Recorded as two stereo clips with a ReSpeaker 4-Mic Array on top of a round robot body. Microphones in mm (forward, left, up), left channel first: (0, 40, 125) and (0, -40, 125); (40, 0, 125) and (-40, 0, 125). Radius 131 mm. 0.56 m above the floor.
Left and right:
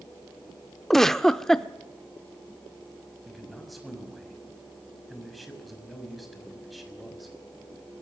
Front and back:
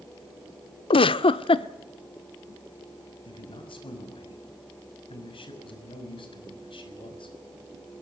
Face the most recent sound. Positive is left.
turn(degrees=0)